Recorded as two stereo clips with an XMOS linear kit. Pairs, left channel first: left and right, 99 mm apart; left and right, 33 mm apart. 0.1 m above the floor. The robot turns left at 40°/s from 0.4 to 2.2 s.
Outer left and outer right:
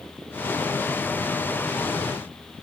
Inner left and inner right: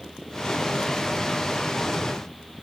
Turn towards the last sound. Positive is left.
No sound to turn to.